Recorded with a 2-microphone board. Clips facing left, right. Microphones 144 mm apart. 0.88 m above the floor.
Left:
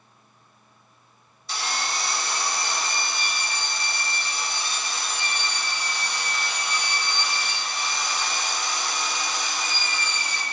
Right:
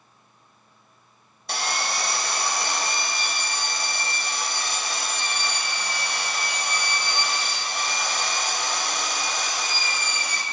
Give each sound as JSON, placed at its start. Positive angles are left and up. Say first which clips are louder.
{"t": 1.5, "sound": "sawing", "louder": "right 2 dB", "side_deg": -70, "distance_m": 1.3}